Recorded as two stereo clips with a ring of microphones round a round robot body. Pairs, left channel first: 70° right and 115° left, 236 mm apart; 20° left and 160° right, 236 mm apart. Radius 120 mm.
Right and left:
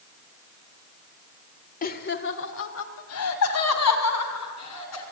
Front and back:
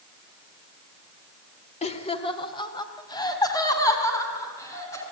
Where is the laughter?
30° right, 1.4 m; by 5.0 s 55° right, 5.5 m.